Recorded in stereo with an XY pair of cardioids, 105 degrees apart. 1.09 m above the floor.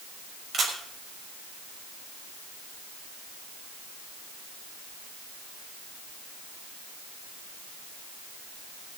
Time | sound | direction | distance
0.5 | a camera shutter | 50° right | 6 m